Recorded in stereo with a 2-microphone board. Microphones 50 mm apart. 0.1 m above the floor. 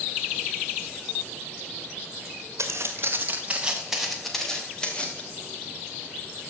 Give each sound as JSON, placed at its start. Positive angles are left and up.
{"t": 2.6, "sound": "footsteps", "side_deg": -65, "distance_m": 2.0}